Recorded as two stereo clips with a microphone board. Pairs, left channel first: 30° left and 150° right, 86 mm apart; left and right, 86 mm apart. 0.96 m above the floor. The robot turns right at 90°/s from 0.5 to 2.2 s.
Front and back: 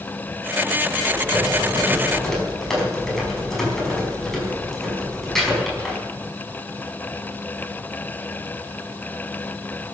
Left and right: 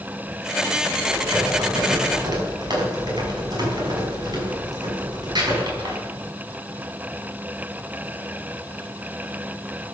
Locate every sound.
1.0 s typing on a keyboard: 165° right, 6 m; by 6.0 s 55° right, 6 m